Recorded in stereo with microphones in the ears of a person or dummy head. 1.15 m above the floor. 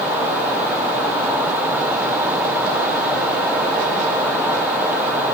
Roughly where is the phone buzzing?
I don't hear a phone buzzing.